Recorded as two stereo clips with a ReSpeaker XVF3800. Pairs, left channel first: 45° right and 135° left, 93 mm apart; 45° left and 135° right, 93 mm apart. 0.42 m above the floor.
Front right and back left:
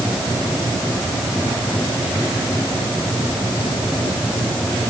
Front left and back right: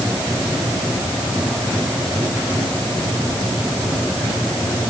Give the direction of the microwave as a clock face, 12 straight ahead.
No microwave in this recording.